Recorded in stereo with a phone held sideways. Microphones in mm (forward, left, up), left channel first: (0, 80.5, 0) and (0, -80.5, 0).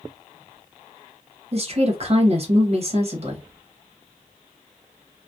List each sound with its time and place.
1.5 s a woman speaking: 45° right (ahead or behind), 0.9 m